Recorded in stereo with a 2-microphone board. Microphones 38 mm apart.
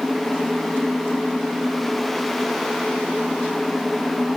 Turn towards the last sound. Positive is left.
No sound to turn to.